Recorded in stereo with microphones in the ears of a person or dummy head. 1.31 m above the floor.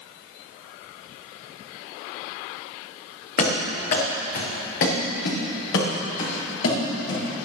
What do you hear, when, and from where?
3.4 s running footsteps: 55° left (ahead or behind), 5.5 m; by 7.5 s 80° left, 9.5 m